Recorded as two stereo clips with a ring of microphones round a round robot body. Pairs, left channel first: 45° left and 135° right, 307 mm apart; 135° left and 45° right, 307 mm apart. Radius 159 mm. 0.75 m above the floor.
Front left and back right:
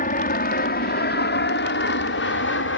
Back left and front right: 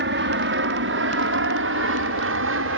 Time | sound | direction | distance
0.0 | an aircraft | 10° right | ?